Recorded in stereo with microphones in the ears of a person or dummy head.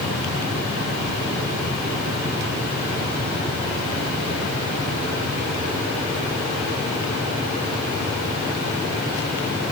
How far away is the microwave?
No microwave in this recording.